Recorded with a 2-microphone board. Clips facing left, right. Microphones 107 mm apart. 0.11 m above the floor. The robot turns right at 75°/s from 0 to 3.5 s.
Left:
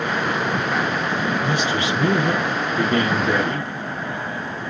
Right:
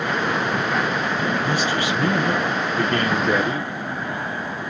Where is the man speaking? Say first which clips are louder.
Even; 20° left (ahead or behind), 1.2 m; by 3.6 s 10° right (ahead or behind), 1.2 m.